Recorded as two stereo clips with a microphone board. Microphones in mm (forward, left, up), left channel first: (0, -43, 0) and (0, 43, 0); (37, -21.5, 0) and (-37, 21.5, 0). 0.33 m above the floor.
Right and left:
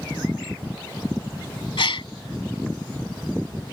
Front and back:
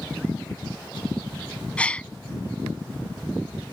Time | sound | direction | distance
1.8 | a gasp | 105° right | ?